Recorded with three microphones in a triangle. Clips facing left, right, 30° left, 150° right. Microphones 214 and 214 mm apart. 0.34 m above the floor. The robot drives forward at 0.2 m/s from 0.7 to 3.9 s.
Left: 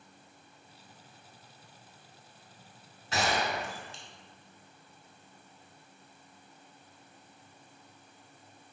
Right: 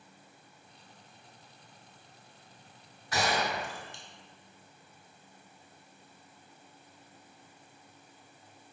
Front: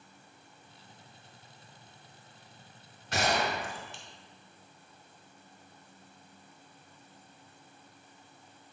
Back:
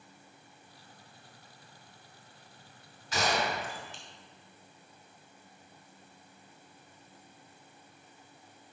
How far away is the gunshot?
About 2 m.